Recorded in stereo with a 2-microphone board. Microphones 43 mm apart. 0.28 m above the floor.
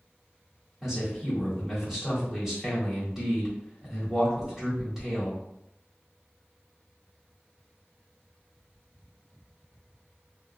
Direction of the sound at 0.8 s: 10° right (ahead or behind).